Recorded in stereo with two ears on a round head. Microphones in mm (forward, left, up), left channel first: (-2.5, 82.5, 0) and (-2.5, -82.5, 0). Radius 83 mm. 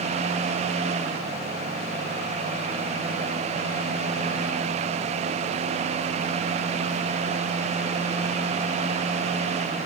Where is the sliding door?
I don't hear a sliding door.